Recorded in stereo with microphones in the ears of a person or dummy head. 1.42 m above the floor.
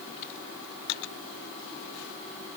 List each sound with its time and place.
Only background noise.